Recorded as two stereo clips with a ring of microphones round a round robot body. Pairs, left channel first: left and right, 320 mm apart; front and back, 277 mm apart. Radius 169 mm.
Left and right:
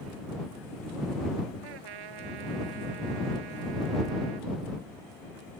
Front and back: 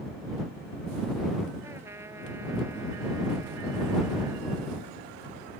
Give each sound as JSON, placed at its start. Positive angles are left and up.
{"t": 1.6, "sound": "a trumpet", "azimuth_deg": -95}